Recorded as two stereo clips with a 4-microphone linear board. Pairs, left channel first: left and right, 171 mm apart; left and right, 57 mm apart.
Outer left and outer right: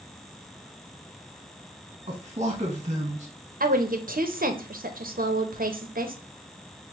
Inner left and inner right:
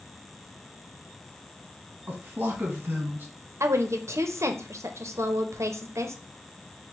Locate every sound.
2.1 s a man speaking: 35° right (ahead or behind), 1.0 m
3.6 s a woman speaking: 60° right (ahead or behind), 0.7 m